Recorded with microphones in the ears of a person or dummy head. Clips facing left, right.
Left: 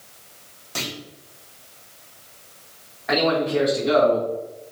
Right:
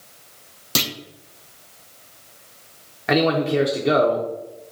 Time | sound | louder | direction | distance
0.8 | a clunk | right 5 dB | 55° right (ahead or behind) | 0.5 m
3.1 | a man speaking | right 2 dB | 50° right (ahead or behind) | 0.5 m